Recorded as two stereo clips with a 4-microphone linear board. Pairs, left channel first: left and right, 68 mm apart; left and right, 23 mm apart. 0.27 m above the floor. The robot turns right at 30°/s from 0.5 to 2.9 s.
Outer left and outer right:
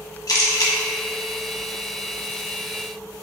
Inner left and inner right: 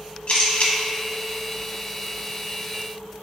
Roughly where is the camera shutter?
Left.